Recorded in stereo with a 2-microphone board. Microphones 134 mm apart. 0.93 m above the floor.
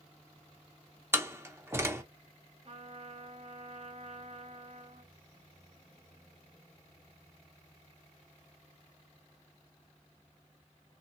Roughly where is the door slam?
Centre.